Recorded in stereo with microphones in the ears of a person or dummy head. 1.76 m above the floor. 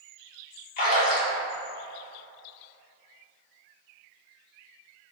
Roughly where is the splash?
Left.